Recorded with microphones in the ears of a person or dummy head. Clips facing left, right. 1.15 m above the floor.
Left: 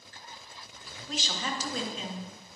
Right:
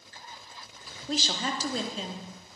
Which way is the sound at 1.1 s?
30° right (ahead or behind).